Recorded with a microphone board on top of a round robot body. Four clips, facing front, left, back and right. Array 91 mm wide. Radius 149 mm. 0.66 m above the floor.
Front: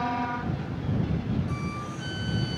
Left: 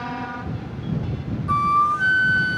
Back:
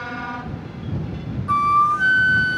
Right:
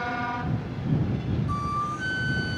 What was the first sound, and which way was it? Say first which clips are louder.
A flute: left 13 dB, back 18 dB; 150° left.